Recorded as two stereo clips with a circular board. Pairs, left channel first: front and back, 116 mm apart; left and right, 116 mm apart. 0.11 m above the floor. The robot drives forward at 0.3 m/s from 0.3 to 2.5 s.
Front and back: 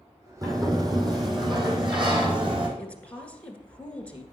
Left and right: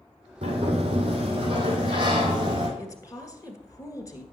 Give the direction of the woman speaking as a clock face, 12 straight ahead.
10 o'clock.